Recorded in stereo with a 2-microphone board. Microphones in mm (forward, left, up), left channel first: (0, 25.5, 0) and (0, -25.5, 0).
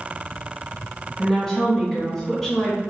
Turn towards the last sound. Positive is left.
turn(degrees=15)  # may be behind; listen again after turning